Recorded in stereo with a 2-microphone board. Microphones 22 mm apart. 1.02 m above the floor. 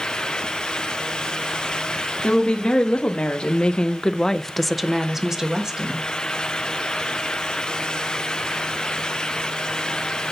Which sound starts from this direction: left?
A woman speaking, at 2.2 s.